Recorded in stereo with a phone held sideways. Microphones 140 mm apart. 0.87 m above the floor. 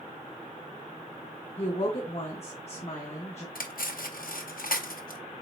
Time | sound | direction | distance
1.6 | a woman speaking | 50° left (ahead or behind) | 1.1 m
3.5 | cutlery clinking | 80° left | 0.6 m